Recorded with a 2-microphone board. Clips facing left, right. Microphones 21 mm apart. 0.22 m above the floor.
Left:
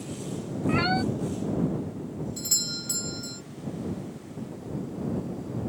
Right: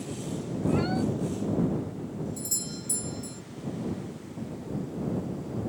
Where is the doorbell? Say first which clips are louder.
Left 5 dB; 45° left (ahead or behind).